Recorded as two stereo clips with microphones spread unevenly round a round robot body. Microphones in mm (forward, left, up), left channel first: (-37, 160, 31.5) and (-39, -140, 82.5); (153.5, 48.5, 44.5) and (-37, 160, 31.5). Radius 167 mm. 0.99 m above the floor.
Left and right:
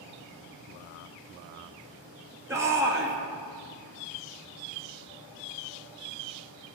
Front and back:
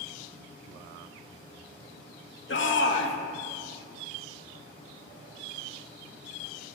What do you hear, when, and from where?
2.5 s a shout: 5° right, 2 m